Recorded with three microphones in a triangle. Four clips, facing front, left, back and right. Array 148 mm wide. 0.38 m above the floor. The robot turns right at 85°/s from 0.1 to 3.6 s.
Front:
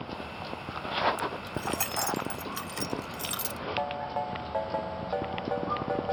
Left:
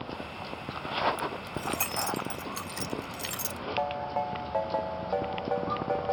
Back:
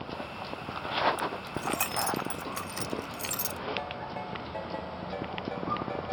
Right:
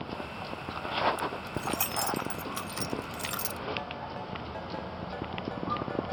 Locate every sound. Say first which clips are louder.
1.2 s keys jangling: even, even; 100° left; by 3.6 s 50° right
3.8 s a ringtone: left 8 dB, front 5 dB; 65° left